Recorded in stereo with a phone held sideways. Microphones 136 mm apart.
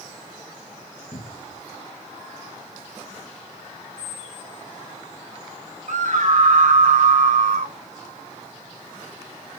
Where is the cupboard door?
50° left (ahead or behind), 1.3 m.